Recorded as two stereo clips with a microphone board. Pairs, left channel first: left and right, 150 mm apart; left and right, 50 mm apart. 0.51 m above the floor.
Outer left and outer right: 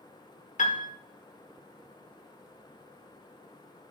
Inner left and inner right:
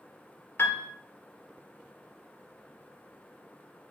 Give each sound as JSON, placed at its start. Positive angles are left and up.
{"t": 0.6, "sound": "a piano", "side_deg": 55, "distance_m": 1.3}